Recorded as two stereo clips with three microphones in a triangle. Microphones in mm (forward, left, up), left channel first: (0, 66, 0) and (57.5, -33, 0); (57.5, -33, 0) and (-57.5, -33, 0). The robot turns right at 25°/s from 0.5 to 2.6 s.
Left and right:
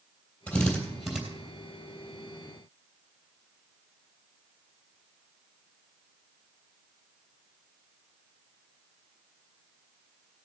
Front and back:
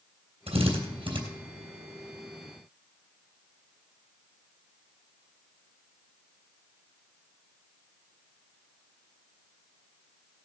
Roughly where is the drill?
Behind.